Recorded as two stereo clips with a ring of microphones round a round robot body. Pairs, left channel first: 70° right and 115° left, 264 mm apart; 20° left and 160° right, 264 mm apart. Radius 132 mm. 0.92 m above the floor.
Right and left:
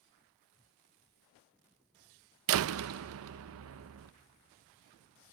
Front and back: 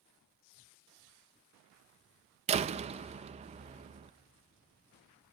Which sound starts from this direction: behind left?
A door slam, at 2.5 s.